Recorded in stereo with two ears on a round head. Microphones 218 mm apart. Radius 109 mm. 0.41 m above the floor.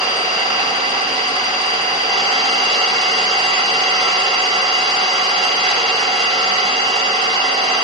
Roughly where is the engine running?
Right.